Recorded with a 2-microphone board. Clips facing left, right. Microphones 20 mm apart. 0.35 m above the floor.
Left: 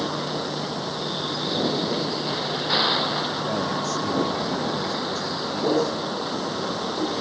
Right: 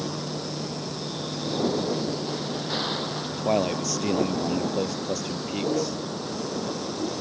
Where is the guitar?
I don't hear a guitar.